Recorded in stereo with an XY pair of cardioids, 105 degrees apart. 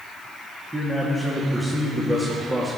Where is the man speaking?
15° right, 2 m.